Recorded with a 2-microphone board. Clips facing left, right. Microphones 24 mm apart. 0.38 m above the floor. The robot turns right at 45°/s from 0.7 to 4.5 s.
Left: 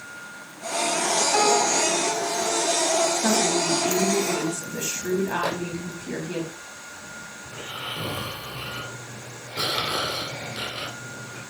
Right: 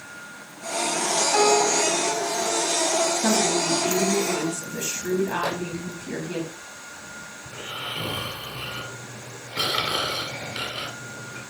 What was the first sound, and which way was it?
A piano, 10° left.